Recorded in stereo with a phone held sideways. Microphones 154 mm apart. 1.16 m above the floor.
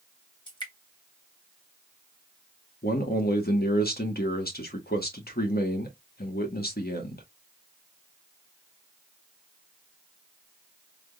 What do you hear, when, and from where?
0.5 s dripping: 30° left (ahead or behind), 1.8 m
2.8 s a man speaking: 70° left (ahead or behind), 1.4 m